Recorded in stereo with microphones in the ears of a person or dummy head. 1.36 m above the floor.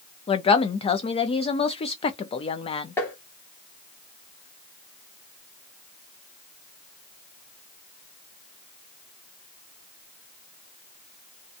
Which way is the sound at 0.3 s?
25° left (ahead or behind).